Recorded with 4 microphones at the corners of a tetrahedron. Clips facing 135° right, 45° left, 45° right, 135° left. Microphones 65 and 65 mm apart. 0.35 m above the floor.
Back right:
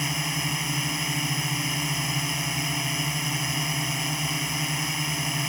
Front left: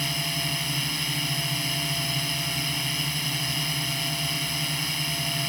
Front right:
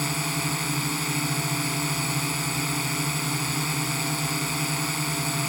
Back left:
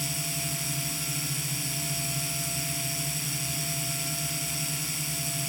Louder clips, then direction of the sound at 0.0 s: Back right 1 dB, front right 8 dB; 65° right.